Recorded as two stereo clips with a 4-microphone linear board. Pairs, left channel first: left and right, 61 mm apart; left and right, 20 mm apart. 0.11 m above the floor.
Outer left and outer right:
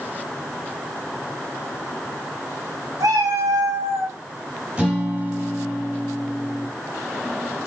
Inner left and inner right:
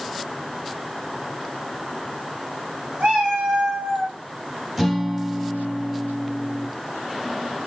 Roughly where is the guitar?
Centre.